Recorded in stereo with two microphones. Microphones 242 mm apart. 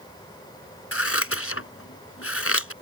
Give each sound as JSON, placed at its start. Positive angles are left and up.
{"t": 0.9, "sound": "scissors", "side_deg": 65}